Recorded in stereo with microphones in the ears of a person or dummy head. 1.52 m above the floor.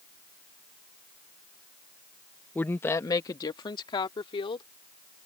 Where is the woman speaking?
10° left (ahead or behind); by 4.7 s 30° left (ahead or behind).